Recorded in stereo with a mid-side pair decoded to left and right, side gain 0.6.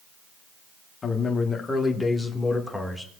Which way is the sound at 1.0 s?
30° left.